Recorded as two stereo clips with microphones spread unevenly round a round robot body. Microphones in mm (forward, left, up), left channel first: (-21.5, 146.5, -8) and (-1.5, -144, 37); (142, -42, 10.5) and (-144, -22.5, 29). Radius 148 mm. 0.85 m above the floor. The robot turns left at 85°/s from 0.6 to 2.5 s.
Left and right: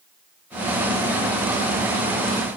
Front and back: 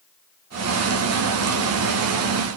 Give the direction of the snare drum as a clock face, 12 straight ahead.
No snare drum in this recording.